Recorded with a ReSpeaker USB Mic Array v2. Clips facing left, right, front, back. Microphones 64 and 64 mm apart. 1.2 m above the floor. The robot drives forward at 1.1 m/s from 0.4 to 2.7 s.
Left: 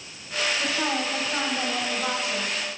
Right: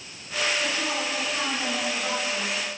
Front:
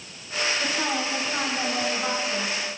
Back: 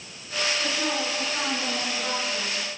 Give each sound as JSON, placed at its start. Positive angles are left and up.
{"t": 0.6, "sound": "a woman speaking", "azimuth_deg": 50, "distance_m": 6.0}